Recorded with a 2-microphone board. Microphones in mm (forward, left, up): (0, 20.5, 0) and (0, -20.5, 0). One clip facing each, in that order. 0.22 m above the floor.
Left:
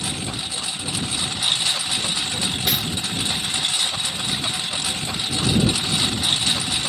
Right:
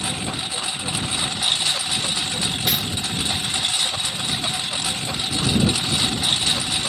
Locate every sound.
0.0 s a lawn mower: 20° right (ahead or behind)
2.7 s cutlery clinking: centre (ahead or behind)